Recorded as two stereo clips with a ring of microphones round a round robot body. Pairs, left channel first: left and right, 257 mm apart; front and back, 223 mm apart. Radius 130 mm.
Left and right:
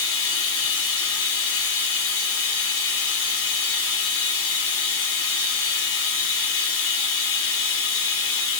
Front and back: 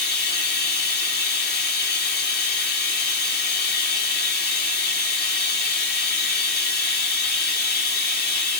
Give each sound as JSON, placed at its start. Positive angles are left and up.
{"t": 0.0, "sound": "running water", "azimuth_deg": 45, "distance_m": 0.8}